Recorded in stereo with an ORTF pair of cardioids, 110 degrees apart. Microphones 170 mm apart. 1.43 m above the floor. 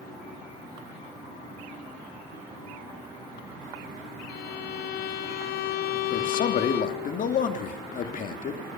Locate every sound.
4.3 s a violin: 65° left, 0.9 m
6.1 s a man speaking: 50° left, 2.5 m